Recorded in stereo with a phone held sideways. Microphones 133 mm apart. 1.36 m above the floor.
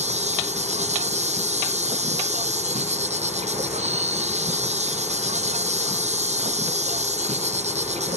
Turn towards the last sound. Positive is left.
turn(degrees=-55)  # may be behind; listen again after turning